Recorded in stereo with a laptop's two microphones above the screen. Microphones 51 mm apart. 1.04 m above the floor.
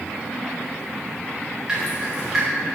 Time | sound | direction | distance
1.7 | dripping | 10° right (ahead or behind) | 1.9 m